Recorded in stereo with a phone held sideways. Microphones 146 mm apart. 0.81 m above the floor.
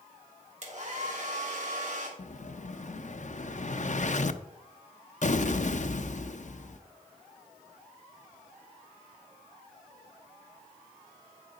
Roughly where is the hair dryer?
Right.